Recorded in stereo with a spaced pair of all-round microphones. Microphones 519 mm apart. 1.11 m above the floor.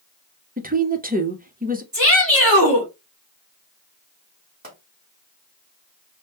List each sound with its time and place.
0.6 s a woman speaking: 15° right (ahead or behind), 0.8 m
1.9 s a shout: 40° right (ahead or behind), 3 m
4.6 s a pop: 15° right (ahead or behind), 3 m